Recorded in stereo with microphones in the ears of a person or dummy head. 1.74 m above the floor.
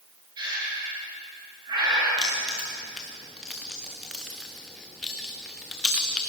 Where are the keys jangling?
5° left (ahead or behind), 0.7 m.